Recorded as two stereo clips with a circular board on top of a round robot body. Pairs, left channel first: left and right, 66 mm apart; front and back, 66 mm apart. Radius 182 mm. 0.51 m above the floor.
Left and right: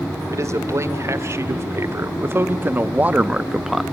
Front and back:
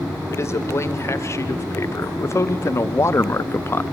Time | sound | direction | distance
0.3 | a man speaking | 45° right | 2.5 m